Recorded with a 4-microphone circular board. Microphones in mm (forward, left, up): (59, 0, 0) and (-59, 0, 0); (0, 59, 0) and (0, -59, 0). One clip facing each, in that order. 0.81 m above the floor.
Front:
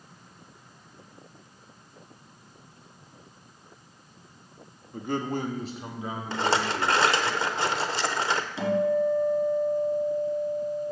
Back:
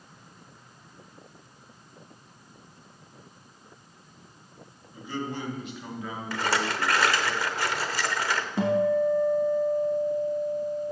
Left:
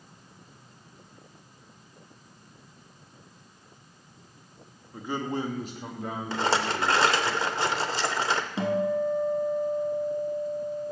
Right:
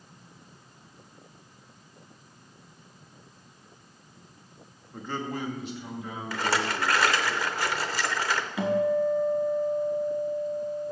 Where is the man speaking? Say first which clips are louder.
Front 4 dB, left 3 dB; straight ahead, 1.0 m; by 7.3 s 85° left, 2.5 m.